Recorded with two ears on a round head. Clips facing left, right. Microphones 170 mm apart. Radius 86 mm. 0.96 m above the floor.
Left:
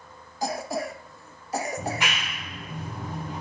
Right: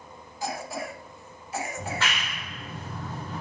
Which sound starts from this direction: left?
A cough, at 0.4 s.